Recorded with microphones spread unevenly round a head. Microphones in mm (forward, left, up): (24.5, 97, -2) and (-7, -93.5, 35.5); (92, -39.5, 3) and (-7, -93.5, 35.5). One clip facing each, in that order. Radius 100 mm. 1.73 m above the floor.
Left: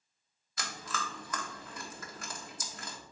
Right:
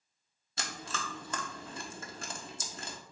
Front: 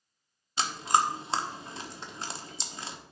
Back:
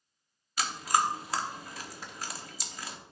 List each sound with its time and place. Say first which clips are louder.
0.6 s chewing: even, front 2 dB; 40° right, 1.1 m